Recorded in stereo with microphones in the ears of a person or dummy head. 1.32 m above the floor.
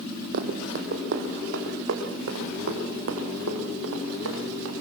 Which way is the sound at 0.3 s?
55° right (ahead or behind).